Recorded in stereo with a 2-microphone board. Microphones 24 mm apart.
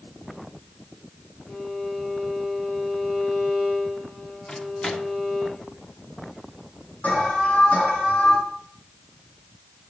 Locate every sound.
1.5 s a violin: 80° left, 5.5 m
4.5 s a microwave: 35° left (ahead or behind), 1.3 m
7.0 s an alarm: 85° left, 5.5 m